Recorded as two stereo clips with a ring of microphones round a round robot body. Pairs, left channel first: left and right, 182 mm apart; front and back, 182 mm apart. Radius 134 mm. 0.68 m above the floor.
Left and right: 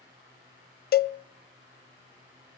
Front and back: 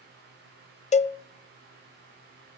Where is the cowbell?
55° left, 0.6 m.